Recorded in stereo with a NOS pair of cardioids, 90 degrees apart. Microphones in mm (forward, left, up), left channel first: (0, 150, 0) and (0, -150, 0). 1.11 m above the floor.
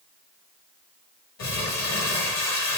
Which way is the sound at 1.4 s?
60° left.